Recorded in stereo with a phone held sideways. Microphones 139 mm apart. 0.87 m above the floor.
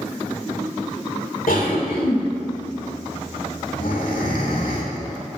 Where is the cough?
80° left, 3 m.